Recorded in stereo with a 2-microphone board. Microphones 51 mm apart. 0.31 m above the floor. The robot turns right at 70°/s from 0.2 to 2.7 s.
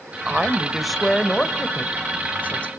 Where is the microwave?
I don't hear a microwave.